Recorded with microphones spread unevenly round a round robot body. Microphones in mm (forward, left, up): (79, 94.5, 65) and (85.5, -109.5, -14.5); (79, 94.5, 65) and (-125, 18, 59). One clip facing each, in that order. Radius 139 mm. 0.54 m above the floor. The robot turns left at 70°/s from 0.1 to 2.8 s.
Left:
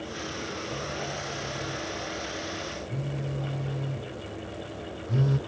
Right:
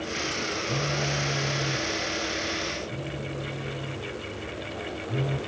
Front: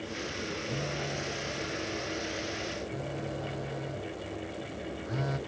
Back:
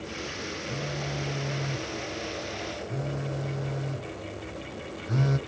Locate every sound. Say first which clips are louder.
0.7 s a phone buzzing: right 5 dB, back 1 dB; 65° right; by 5.4 s 145° left